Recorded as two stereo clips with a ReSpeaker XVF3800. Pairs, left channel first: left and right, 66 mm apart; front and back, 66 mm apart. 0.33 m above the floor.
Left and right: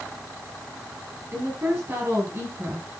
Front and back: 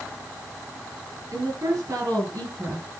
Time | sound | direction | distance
1.3 | a woman speaking | 140° right | 6.5 m